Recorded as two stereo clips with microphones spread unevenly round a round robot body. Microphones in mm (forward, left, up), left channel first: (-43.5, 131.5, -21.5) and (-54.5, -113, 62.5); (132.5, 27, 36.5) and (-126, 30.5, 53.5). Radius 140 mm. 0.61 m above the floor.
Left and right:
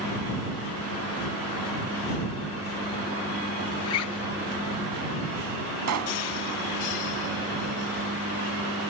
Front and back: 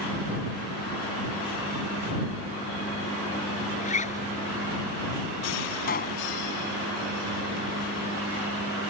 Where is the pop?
60° right.